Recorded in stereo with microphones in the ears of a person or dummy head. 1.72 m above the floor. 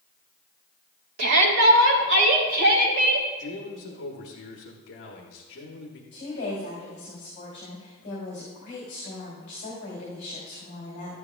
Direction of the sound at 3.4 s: 60° left (ahead or behind).